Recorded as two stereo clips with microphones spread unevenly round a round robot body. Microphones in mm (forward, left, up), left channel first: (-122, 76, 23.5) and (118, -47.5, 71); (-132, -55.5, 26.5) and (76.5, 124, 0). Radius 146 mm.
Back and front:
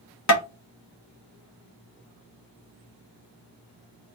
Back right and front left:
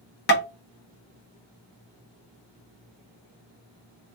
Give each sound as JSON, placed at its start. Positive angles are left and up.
{"t": 0.3, "sound": "tapping", "azimuth_deg": 165, "distance_m": 0.9}